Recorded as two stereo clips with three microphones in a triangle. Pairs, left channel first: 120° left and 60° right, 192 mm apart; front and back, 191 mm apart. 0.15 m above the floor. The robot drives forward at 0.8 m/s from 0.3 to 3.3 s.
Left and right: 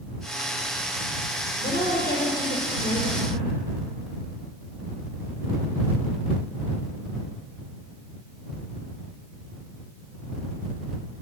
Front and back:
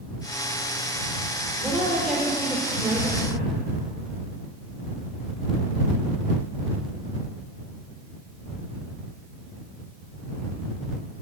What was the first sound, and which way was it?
A woman speaking, 85° left.